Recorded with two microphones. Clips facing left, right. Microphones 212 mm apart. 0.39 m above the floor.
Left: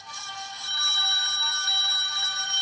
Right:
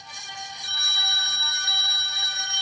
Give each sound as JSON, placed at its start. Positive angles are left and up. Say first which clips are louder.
{"t": 0.6, "sound": "a phone ringing", "louder": "even", "side_deg": 50, "distance_m": 2.0}